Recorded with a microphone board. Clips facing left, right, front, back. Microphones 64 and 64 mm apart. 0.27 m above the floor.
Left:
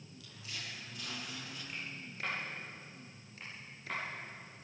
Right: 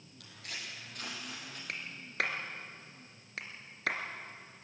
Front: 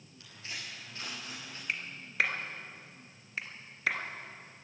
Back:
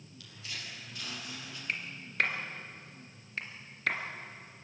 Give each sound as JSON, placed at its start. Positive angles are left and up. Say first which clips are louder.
{"t": 0.2, "sound": "footsteps", "louder": "right 2 dB, front 1 dB", "azimuth_deg": -60, "distance_m": 8.5}
{"t": 1.7, "sound": "a clap", "louder": "right 1 dB, even", "azimuth_deg": -85, "distance_m": 3.0}